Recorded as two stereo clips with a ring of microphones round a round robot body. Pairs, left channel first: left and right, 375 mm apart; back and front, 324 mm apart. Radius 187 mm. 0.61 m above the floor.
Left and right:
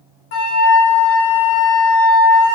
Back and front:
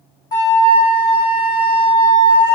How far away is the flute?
About 1.2 m.